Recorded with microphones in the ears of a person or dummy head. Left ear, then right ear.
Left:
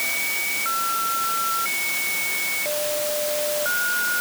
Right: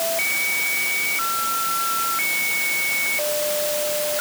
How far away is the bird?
No bird in this recording.